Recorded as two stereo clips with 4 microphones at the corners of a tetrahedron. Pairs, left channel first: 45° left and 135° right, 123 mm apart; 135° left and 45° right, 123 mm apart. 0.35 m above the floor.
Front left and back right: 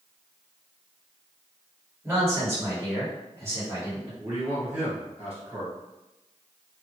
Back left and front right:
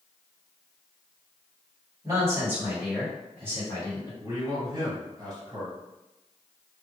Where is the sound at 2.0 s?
80° right, 1.5 m; by 4.1 s 165° left, 1.4 m.